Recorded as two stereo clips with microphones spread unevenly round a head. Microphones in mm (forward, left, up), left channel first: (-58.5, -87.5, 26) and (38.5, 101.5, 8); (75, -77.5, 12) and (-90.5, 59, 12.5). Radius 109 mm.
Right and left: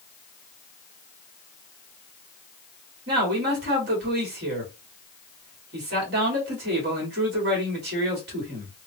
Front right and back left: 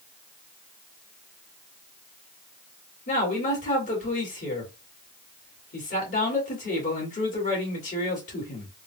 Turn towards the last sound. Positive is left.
turn(degrees=15)